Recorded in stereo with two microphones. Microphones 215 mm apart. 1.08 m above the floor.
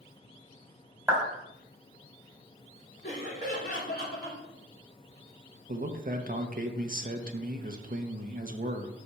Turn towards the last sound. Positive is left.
turn(degrees=-40)  # may be behind; listen again after turning